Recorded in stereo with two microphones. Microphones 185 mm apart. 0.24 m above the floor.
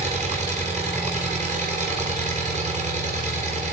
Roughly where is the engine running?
Right.